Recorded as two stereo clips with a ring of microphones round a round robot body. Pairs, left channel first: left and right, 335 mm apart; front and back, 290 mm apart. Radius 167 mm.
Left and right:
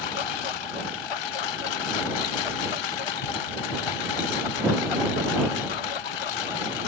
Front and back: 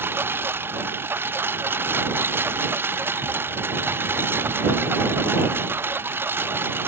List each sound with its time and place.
0.0 s a lawn mower: 95° left